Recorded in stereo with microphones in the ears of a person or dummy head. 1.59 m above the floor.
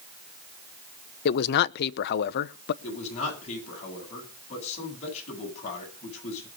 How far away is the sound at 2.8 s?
About 10 m.